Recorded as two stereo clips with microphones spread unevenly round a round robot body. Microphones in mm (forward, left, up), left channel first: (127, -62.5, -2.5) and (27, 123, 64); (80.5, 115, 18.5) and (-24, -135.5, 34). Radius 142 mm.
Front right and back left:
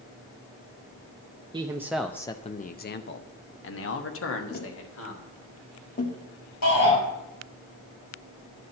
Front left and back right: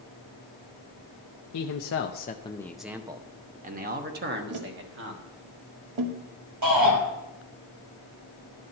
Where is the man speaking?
45° left, 0.7 m; by 5.3 s 65° right, 1.8 m.